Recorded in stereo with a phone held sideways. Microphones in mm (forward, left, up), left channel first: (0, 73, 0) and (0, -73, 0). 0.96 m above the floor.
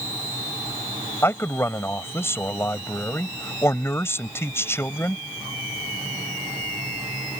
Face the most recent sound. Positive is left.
turn(degrees=15)  # may be behind; listen again after turning